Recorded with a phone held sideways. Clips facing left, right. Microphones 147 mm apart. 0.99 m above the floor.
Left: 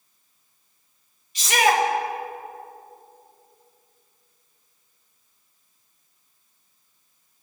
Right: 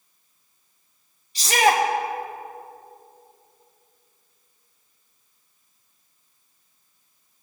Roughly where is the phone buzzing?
No phone buzzing in this recording.